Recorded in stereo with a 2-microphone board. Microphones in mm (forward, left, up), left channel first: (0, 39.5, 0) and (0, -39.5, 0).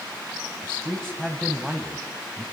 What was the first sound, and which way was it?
A man speaking, 10° left (ahead or behind).